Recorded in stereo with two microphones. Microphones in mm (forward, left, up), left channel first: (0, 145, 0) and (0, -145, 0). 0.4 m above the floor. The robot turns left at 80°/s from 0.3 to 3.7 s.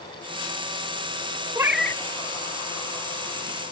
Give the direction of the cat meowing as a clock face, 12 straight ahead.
5 o'clock.